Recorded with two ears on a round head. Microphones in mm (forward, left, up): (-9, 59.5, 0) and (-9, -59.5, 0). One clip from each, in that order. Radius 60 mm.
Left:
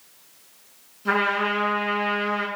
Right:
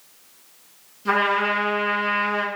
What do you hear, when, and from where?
1.1 s a trumpet: 15° left (ahead or behind), 8.5 m